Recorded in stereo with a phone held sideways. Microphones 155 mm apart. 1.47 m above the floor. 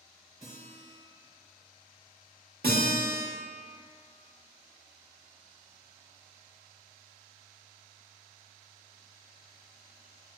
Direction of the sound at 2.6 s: 85° right.